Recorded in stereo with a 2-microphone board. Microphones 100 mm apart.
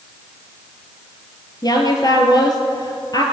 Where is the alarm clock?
No alarm clock in this recording.